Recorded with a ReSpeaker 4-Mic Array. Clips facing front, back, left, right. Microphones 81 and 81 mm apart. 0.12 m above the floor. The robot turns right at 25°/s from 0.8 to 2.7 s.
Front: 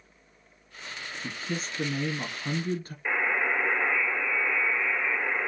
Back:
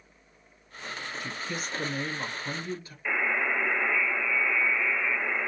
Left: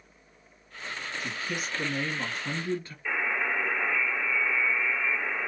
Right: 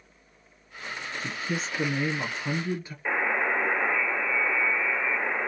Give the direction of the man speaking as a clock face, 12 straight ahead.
2 o'clock.